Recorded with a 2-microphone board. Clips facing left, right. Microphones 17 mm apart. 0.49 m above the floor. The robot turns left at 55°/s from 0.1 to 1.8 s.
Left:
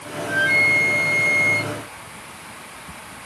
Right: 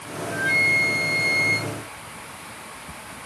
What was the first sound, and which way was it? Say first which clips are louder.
A flute: left 3 dB; 100° left.